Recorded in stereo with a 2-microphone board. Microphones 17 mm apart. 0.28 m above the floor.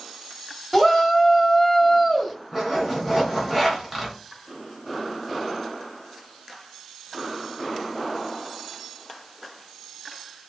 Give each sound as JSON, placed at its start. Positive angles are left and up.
{"t": 0.7, "sound": "a shout", "side_deg": -5, "distance_m": 1.3}
{"t": 2.5, "sound": "a zipper", "side_deg": -10, "distance_m": 2.5}